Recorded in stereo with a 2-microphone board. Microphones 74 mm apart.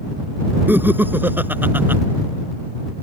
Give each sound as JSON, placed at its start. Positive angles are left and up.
{"t": 0.7, "sound": "laughter", "side_deg": -25}